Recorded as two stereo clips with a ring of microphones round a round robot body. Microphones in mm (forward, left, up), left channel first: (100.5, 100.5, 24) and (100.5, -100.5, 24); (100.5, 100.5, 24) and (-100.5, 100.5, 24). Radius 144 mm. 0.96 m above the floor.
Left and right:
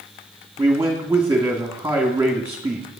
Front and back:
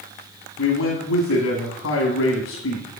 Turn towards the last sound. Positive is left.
turn(degrees=-15)